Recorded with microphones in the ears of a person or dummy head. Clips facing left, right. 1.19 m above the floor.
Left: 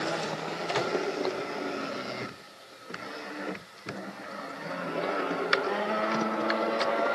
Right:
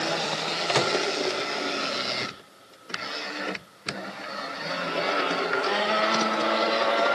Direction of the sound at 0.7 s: 55° right (ahead or behind).